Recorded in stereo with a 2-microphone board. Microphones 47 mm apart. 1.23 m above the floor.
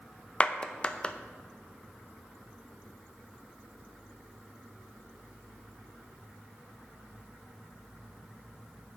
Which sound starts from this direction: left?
A clap, at 0.4 s.